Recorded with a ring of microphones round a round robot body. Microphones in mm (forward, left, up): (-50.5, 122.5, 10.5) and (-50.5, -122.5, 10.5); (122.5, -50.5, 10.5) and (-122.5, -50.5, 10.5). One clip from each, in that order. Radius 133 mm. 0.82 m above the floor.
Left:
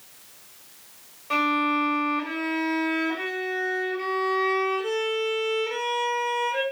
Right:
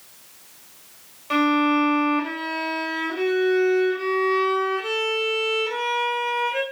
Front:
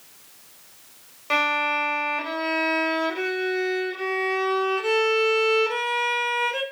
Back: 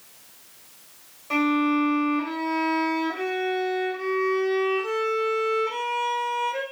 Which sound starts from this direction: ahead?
A violin, at 1.3 s.